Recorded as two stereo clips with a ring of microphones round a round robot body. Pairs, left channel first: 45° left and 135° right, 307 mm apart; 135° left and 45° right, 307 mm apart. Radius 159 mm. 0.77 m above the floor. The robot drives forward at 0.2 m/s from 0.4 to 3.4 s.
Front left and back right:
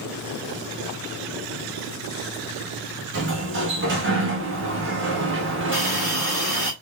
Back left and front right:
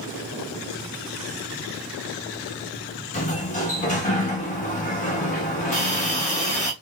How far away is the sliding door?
About 1.2 m.